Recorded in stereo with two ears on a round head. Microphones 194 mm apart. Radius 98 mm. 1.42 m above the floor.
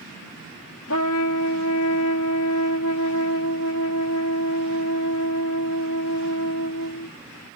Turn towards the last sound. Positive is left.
turn(degrees=70)  # may be behind; listen again after turning